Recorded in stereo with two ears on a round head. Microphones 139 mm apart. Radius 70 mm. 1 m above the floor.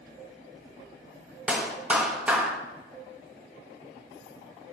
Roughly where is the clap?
Centre.